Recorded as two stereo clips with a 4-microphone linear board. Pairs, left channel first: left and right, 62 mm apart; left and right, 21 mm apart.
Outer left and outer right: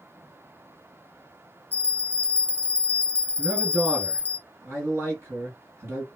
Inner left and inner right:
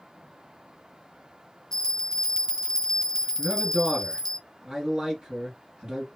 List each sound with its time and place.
1.7 s a bell: 30° left (ahead or behind), 0.6 m
3.4 s a man speaking: 40° right (ahead or behind), 2 m